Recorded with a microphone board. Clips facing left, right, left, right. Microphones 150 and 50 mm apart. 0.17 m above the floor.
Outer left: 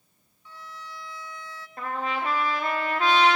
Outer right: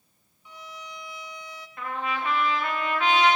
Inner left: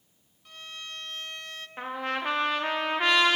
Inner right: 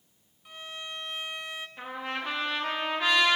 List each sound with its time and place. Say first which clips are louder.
0.5 s a violin: outer right 1 dB, inner right 2 dB; 15° right (ahead or behind), 1.4 m
1.8 s a trumpet: outer left 1 dB, inner left 5 dB; 40° left (ahead or behind), 4.5 m